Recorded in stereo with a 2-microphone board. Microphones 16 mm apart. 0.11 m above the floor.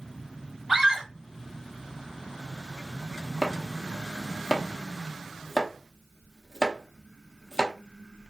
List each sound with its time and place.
0.7 s a scream: 30° right (ahead or behind), 2 m
3.4 s chopping: 30° left (ahead or behind), 0.7 m